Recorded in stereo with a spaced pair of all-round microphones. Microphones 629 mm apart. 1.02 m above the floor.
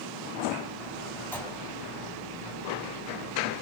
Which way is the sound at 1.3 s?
5° left (ahead or behind).